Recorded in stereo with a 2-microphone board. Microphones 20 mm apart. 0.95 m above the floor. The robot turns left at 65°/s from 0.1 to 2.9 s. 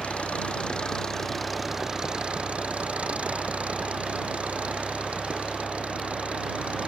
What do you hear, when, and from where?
0.0 s an engine running: 90° left; by 6.9 s 90° right